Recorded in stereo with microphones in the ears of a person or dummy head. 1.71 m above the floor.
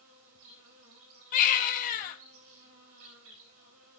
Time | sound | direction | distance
0.0 | an insect | 75° right (ahead or behind) | 3 m
1.3 | a baby crying | 50° left (ahead or behind) | 1.7 m